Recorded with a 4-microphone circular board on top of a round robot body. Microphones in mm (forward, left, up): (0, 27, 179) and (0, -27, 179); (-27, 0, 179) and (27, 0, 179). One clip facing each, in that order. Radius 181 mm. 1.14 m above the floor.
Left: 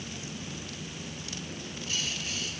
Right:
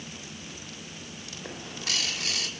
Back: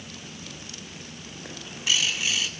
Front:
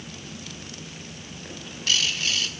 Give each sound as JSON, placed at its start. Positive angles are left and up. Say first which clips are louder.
{"t": 1.4, "sound": "a bird", "louder": "right 6 dB, even", "azimuth_deg": -105, "distance_m": 2.0}